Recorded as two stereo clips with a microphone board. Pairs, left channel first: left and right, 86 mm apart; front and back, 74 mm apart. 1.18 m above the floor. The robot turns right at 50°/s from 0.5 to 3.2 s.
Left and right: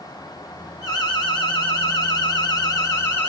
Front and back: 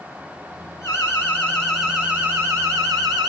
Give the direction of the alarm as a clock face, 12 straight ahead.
11 o'clock.